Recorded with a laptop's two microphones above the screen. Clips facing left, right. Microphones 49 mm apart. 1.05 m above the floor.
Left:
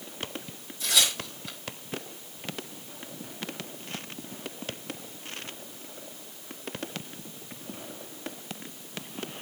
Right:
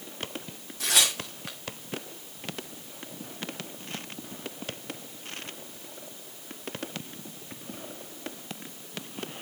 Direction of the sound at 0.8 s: 75° right (ahead or behind).